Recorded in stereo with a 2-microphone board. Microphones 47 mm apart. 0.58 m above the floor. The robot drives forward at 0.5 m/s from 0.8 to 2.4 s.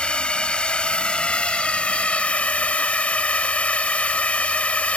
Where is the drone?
25° left (ahead or behind); by 5.0 s 30° left (ahead or behind).